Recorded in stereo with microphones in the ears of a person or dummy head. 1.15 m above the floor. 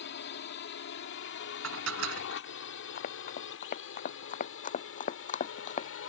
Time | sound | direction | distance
0.0 | a drone | 60° left (ahead or behind) | ?
1.6 | dishes clattering | 80° right | ?
3.0 | running footsteps | 50° left (ahead or behind) | ?